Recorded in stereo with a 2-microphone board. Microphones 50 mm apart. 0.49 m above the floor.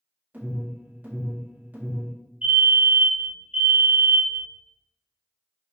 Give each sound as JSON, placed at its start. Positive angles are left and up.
{"t": 0.3, "sound": "an alarm", "side_deg": -35, "distance_m": 1.5}
{"t": 2.4, "sound": "a fire alarm", "side_deg": -25, "distance_m": 1.7}